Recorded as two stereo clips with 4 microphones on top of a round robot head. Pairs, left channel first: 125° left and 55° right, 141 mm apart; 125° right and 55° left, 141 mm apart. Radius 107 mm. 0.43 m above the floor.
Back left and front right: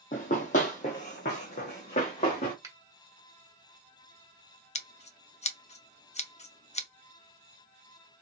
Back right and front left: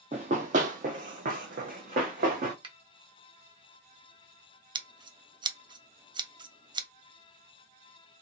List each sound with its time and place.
0.1 s running footsteps: 90° left, 0.5 m; by 2.5 s 85° left, 1.8 m
2.6 s a finger snap: 10° left, 1.3 m
4.8 s scissors: 105° left, 0.7 m